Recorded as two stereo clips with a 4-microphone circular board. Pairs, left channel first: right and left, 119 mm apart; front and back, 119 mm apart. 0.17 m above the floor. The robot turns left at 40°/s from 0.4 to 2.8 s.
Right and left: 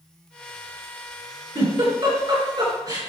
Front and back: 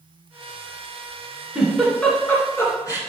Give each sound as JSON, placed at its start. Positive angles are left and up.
{"t": 1.6, "sound": "a giggle", "azimuth_deg": 100, "distance_m": 2.5}